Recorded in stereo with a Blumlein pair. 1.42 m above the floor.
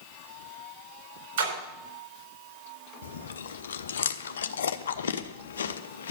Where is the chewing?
65° left, 0.7 m.